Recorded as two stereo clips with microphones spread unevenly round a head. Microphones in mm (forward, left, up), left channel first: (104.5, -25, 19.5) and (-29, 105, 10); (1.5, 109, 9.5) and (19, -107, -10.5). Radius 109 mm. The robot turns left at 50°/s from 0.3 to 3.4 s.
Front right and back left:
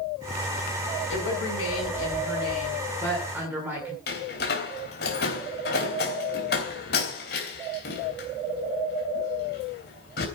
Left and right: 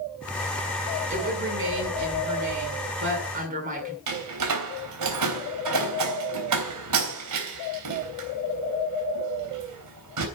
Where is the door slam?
95° right, 3 m.